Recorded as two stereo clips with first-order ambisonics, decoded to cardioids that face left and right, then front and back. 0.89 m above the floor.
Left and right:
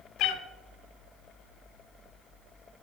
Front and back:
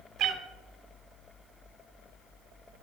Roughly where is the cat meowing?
Behind left.